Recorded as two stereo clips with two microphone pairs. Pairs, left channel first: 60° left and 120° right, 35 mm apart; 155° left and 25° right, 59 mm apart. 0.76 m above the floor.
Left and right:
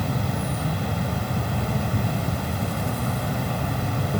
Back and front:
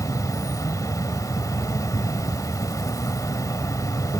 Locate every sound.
0.0 s an insect: 155° left